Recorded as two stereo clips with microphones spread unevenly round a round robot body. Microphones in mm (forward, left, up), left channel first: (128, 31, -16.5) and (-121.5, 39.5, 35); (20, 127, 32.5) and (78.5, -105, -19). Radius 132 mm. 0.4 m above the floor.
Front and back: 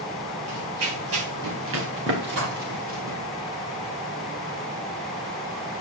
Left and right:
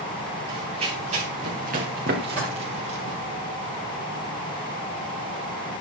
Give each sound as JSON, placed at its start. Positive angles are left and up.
{"t": 0.5, "sound": "running footsteps", "azimuth_deg": -150, "distance_m": 5.5}
{"t": 2.4, "sound": "dishes clattering", "azimuth_deg": 180, "distance_m": 8.5}